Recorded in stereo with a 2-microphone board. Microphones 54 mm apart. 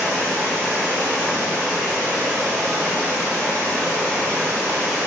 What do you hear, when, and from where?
0.0 s running water: 50° right (ahead or behind), 1.9 m